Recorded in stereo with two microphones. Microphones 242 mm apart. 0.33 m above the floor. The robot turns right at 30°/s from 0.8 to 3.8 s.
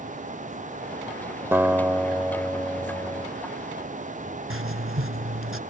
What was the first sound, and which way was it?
A guitar, 10° right (ahead or behind).